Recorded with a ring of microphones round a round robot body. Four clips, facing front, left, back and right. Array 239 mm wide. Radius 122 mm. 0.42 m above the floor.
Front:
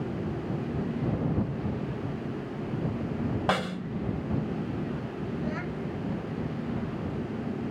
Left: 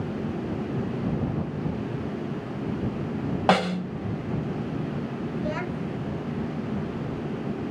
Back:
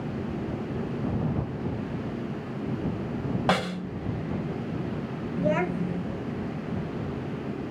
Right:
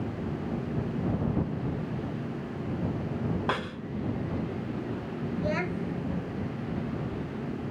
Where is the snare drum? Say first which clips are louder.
Left 10 dB, back 5 dB; 95° left.